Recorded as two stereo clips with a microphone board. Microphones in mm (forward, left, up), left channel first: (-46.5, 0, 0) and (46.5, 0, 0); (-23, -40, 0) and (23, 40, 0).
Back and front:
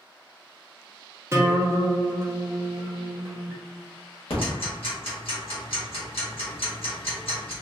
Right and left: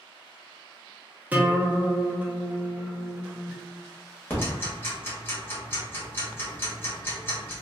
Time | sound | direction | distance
1.3 | a guitar | 5° left | 0.6 m
4.3 | ticking | 175° left | 1.2 m